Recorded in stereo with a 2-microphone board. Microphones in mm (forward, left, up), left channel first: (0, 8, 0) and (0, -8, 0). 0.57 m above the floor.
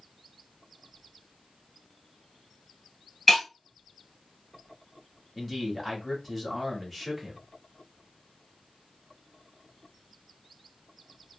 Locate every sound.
3.3 s breaking glass: 5° left (ahead or behind), 1.4 m
5.3 s a man speaking: 10° left (ahead or behind), 1.5 m